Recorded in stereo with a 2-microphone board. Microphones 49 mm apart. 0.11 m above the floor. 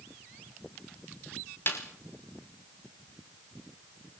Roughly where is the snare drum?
Left.